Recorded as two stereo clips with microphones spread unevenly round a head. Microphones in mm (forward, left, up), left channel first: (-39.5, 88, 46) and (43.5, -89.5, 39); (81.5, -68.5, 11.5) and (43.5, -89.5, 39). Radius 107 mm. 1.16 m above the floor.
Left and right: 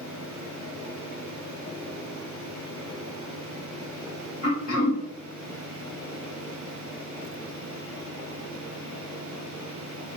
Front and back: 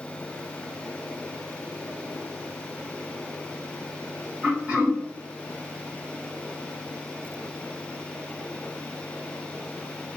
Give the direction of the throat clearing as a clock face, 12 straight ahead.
7 o'clock.